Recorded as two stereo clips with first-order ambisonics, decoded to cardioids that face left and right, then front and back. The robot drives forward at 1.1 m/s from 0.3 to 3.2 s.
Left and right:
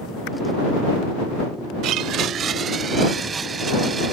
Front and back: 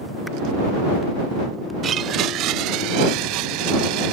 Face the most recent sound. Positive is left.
turn(degrees=-160)